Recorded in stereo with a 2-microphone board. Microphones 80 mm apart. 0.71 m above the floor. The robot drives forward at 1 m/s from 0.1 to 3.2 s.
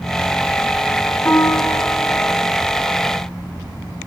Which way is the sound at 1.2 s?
20° left (ahead or behind).